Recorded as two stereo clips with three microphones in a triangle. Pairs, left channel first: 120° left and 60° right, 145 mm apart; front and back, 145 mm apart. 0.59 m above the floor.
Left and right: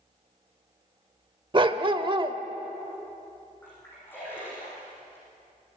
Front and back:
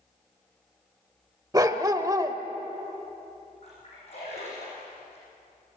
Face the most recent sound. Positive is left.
turn(degrees=45)